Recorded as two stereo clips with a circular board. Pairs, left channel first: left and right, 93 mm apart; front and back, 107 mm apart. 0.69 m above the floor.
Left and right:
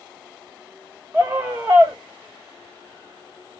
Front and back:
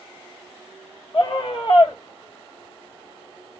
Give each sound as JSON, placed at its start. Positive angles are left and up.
{"t": 1.1, "sound": "a scream", "azimuth_deg": -15, "distance_m": 1.3}